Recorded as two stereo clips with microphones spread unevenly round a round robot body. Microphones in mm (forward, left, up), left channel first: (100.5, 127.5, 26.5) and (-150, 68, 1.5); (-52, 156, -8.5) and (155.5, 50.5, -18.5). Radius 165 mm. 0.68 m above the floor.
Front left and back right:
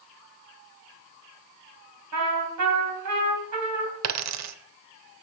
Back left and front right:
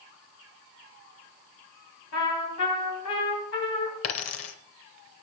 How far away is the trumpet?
About 2.5 m.